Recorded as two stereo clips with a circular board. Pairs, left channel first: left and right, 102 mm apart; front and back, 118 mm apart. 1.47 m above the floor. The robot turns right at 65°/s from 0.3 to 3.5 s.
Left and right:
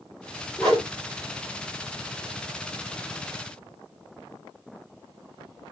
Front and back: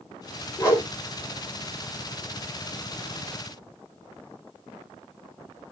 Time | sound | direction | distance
0.6 | a whoosh | 5° left | 1.2 m